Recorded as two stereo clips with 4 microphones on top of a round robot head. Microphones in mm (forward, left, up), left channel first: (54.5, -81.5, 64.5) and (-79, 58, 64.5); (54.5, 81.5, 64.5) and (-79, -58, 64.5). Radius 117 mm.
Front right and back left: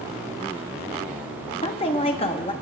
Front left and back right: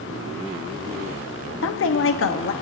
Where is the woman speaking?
20° left, 0.7 m.